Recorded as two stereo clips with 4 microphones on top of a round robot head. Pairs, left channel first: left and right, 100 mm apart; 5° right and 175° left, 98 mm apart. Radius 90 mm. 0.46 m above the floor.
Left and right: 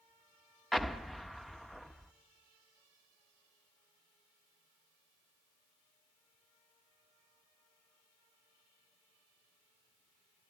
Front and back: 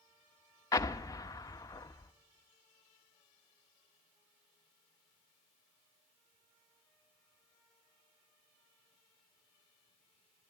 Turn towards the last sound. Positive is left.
turn(degrees=5)